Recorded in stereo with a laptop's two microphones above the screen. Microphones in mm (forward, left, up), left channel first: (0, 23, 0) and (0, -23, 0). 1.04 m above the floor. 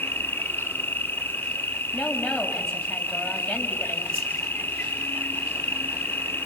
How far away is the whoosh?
About 4.5 m.